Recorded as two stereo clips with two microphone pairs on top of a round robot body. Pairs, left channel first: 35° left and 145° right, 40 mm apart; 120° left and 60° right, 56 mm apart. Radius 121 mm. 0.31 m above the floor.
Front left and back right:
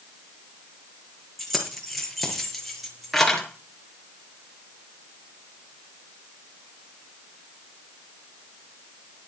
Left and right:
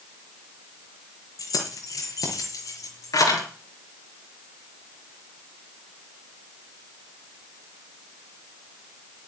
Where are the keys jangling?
125° left, 6.5 m.